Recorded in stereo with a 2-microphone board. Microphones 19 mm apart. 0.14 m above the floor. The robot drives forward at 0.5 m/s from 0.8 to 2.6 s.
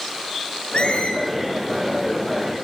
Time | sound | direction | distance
0.7 | a squeak | 65° left (ahead or behind) | 6 m